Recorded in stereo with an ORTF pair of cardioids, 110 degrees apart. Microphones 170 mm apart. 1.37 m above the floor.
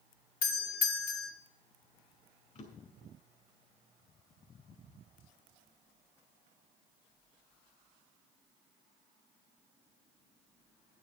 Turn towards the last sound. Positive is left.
turn(degrees=45)